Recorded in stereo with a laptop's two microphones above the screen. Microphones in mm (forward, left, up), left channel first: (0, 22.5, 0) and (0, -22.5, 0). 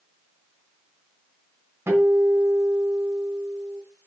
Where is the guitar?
65° right (ahead or behind), 3 m.